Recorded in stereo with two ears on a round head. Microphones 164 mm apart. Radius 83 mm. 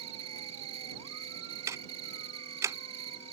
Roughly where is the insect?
Right.